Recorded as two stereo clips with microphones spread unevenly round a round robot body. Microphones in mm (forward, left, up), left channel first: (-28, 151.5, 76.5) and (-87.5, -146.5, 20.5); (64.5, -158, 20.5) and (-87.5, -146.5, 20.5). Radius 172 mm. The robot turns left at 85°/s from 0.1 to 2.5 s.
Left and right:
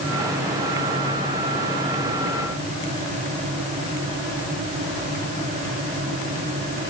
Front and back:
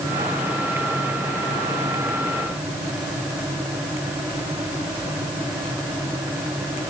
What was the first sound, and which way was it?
Only background noise.